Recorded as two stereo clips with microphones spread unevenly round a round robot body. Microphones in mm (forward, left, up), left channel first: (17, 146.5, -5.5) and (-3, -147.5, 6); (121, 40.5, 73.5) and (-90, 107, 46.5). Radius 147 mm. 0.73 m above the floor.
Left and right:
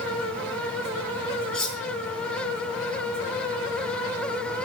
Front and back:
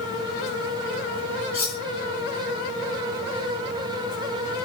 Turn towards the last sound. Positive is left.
turn(degrees=0)